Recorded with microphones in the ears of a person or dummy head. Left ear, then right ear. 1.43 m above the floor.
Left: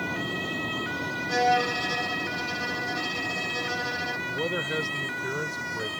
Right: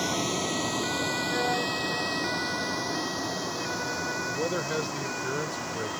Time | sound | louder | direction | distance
0.0 | a vehicle | right 2 dB | 65° right (ahead or behind) | ?
1.3 | a violin | left 9 dB | 65° left (ahead or behind) | ?
4.3 | a man speaking | left 1 dB | centre (ahead or behind) | ?